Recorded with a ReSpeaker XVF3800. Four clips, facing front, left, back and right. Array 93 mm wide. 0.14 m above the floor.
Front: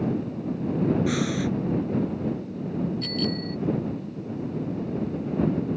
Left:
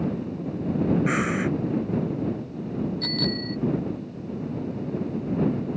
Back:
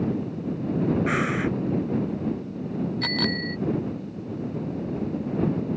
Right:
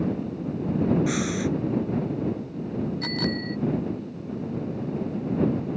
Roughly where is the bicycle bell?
Behind.